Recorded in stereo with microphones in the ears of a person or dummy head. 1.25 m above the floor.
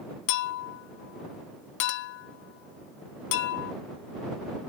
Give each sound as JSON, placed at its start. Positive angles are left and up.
{"t": 0.3, "sound": "a clink", "side_deg": 60}